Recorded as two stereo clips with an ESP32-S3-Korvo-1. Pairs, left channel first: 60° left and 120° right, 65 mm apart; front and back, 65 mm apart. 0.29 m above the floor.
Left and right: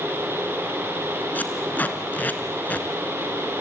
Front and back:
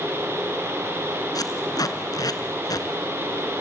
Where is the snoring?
I don't hear snoring.